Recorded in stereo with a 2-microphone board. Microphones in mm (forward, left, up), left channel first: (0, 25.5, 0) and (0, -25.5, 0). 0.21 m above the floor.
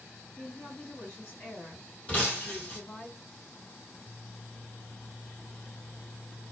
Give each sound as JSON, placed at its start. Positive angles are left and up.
{"t": 0.4, "sound": "a woman speaking", "side_deg": 40, "distance_m": 1.7}
{"t": 2.1, "sound": "breaking glass", "side_deg": 25, "distance_m": 1.6}